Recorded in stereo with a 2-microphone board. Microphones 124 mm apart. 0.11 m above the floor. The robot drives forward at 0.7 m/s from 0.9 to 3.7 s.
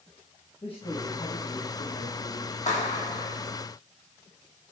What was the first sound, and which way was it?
A man speaking, 40° left (ahead or behind).